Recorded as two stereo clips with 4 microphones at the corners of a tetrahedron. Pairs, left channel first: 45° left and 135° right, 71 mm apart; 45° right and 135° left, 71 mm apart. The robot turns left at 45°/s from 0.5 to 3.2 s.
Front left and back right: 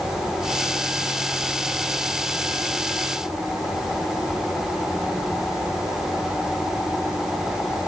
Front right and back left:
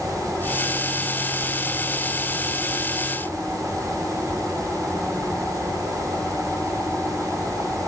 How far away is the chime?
I don't hear a chime.